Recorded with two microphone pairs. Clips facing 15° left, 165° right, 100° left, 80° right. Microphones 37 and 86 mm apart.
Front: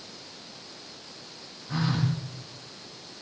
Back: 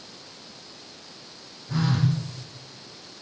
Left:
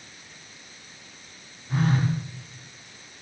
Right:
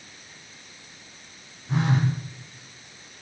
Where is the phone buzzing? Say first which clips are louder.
Back 3 dB, even; 65° right, 6 m.